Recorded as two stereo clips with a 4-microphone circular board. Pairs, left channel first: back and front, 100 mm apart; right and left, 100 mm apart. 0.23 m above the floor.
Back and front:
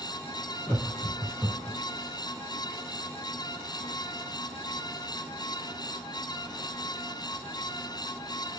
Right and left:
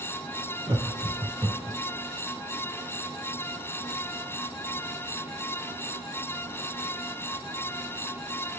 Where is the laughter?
115° left, 1.8 m; by 1.8 s 90° left, 1.8 m.